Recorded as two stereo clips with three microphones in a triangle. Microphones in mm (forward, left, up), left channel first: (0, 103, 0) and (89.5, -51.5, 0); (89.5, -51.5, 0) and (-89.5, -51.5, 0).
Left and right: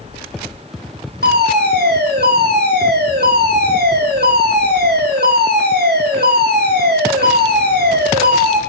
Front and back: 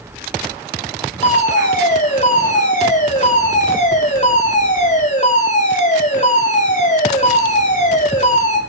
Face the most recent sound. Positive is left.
turn(degrees=-45)